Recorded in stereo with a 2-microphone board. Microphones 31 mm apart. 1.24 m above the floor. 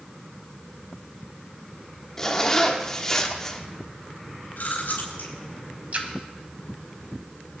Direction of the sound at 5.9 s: 50° right (ahead or behind).